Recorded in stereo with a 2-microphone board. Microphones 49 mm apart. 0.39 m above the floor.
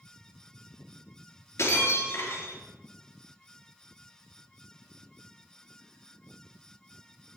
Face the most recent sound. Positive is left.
turn(degrees=65)  # may be behind; listen again after turning